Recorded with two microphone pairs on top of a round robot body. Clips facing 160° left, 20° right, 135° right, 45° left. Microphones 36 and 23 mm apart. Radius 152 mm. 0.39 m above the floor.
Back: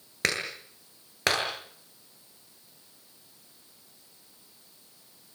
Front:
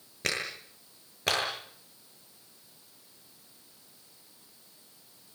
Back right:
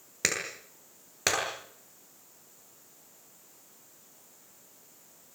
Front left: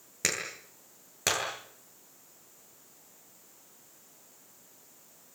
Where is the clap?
150° left, 9 m.